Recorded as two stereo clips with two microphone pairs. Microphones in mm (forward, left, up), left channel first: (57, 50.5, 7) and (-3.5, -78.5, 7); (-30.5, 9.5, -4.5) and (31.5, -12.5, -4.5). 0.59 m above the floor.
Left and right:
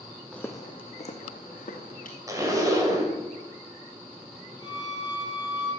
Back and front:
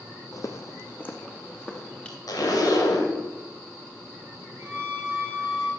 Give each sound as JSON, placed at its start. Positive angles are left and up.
{"t": 0.3, "sound": "footsteps", "azimuth_deg": 150, "distance_m": 1.0}
{"t": 2.3, "sound": "a zipper", "azimuth_deg": 180, "distance_m": 2.0}
{"t": 4.6, "sound": "a violin", "azimuth_deg": -75, "distance_m": 4.5}